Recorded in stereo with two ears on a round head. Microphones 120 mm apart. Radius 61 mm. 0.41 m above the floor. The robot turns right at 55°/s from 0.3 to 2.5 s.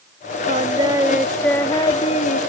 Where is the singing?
50° right; by 2.4 s 60° left.